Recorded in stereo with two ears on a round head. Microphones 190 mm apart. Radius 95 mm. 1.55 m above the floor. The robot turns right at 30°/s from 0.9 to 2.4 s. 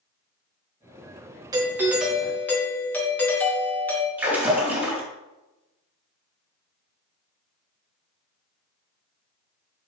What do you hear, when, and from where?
1.5 s a doorbell: 15° right (ahead or behind), 2 m; by 4.1 s 10° left (ahead or behind), 2 m
4.2 s a splash: 10° right (ahead or behind), 4 m